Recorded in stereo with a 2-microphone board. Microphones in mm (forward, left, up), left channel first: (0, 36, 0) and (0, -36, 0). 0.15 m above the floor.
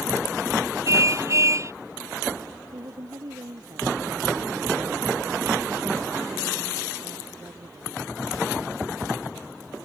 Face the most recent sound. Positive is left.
turn(degrees=-50)  # may be behind; listen again after turning